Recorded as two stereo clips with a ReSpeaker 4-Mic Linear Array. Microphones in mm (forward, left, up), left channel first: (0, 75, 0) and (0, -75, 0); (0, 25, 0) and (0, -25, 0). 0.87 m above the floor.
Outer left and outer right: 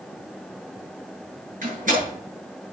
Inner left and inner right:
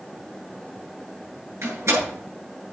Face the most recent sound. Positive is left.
turn(degrees=-65)  # may be behind; listen again after turning